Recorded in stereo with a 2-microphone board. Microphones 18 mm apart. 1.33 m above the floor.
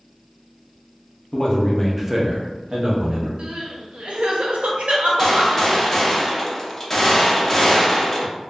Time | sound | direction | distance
1.3 | a man speaking | 40° left (ahead or behind) | 0.7 m
3.4 | crying | 85° right | 0.6 m
5.2 | a gunshot | 15° left (ahead or behind) | 0.6 m